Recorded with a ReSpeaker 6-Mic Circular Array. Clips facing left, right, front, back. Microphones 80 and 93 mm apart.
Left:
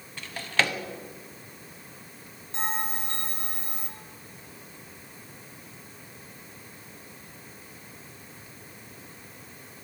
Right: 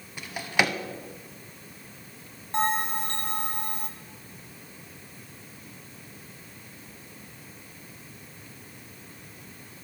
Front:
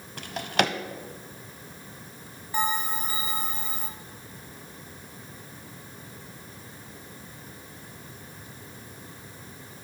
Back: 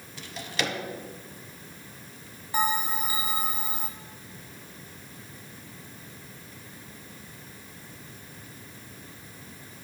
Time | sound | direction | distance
0.2 | a drawer | 15° right | 0.8 m
2.5 | a bell | 100° right | 1.4 m